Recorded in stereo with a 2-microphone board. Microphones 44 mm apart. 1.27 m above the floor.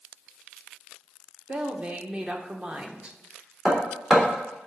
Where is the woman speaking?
25° right (ahead or behind), 1.1 m.